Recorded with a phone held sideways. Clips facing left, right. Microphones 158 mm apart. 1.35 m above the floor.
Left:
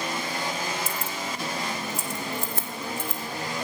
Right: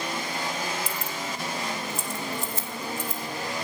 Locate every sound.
0.9 s keys jangling: 45° left (ahead or behind), 1.1 m; by 3.2 s 65° left (ahead or behind), 4.5 m